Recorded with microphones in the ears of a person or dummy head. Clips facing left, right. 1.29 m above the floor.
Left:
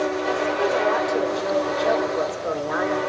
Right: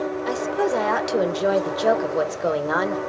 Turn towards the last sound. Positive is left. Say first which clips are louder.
# right 2 dB
turn(degrees=-75)  # may be behind; listen again after turning